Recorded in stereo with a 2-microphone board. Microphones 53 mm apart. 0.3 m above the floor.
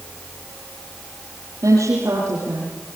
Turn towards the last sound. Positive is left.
turn(degrees=-80)